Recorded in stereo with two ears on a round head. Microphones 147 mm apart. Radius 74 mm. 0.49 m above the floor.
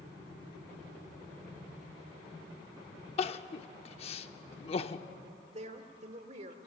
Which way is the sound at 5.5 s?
40° right (ahead or behind).